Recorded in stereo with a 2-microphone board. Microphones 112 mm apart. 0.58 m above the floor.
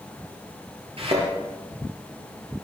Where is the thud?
60° right (ahead or behind), 6.5 m.